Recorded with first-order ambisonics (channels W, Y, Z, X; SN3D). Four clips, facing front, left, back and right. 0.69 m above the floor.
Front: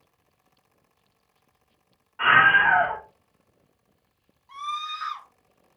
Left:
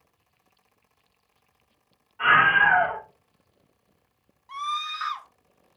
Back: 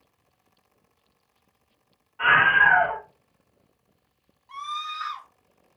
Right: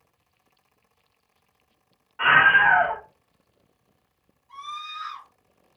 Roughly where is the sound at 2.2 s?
Ahead right.